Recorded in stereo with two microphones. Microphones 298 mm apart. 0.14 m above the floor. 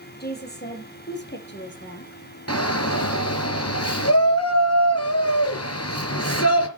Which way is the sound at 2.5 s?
55° left (ahead or behind).